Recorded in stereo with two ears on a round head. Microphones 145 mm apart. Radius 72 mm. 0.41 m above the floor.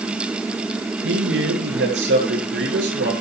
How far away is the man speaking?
About 8.5 m.